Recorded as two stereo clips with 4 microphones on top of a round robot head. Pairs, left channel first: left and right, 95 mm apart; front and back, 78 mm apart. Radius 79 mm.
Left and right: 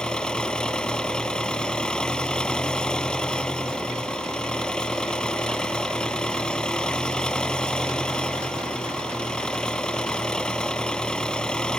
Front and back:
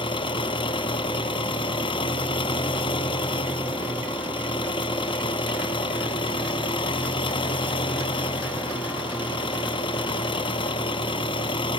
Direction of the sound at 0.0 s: 10° left.